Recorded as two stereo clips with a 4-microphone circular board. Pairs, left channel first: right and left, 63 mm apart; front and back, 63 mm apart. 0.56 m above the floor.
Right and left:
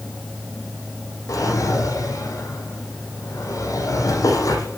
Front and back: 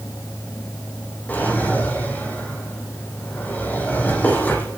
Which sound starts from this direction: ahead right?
A drawer, at 1.3 s.